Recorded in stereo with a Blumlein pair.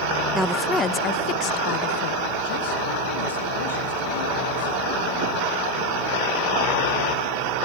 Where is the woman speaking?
15° right, 0.5 m; by 4.9 s 65° left, 2.5 m.